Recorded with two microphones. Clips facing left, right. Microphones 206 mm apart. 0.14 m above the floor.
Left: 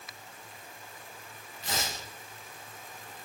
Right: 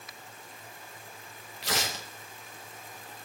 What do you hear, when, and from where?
1.6 s tearing paper: 80° right, 4 m